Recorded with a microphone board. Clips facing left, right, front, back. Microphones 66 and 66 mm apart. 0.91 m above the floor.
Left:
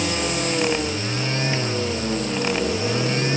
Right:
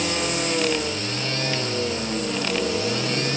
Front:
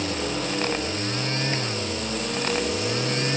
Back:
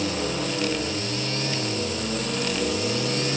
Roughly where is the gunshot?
I don't hear a gunshot.